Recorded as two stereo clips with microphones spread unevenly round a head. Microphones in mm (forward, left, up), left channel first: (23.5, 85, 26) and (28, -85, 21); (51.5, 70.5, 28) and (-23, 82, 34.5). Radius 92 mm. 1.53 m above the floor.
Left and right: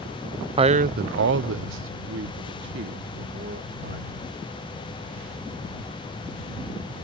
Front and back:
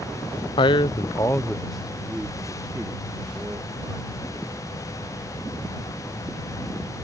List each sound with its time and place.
0.6 s a man speaking: 25° right; by 4.1 s 130° right